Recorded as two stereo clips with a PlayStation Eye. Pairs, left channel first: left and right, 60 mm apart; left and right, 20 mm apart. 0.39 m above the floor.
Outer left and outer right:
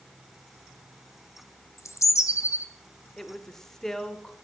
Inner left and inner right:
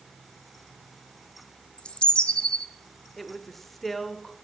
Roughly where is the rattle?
I don't hear a rattle.